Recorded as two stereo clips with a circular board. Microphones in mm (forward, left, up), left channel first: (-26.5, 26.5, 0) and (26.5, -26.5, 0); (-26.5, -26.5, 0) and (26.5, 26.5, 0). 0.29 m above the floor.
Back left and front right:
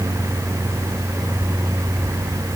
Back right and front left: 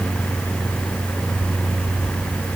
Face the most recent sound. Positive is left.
No sound to turn to.